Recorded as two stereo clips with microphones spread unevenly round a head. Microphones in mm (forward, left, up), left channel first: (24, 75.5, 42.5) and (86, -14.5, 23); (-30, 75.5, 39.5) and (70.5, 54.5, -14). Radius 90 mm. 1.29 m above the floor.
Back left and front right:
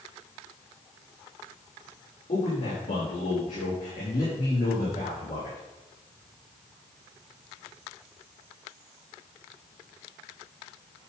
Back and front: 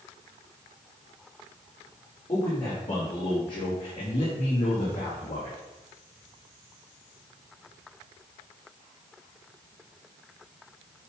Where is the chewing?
No chewing in this recording.